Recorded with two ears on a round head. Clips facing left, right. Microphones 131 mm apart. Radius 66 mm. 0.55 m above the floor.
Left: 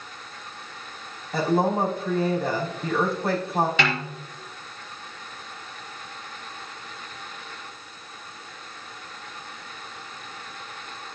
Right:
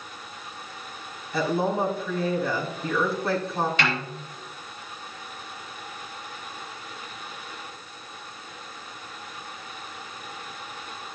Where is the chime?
I don't hear a chime.